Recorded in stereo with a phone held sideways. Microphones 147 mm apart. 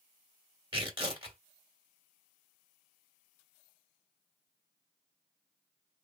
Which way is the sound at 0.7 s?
30° right (ahead or behind).